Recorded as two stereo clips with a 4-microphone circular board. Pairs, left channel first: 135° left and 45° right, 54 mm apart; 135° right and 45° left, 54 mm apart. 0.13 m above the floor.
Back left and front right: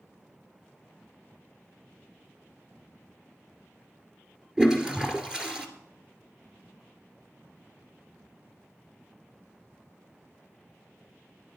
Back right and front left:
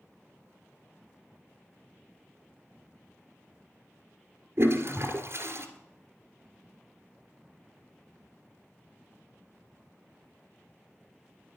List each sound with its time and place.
4.6 s a toilet flushing: 25° left, 1.8 m